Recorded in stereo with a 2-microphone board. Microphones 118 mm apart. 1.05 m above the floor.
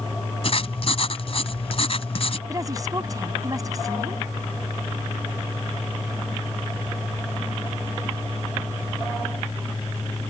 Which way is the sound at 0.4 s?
55° left (ahead or behind).